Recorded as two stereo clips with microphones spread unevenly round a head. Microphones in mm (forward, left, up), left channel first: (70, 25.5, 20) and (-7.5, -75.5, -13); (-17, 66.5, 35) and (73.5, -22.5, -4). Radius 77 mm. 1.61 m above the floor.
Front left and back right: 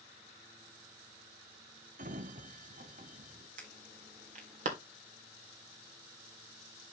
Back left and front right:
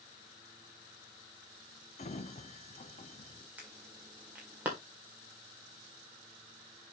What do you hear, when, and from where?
2.0 s a sliding door: 175° right, 0.5 m
3.6 s an alarm: 120° right, 2 m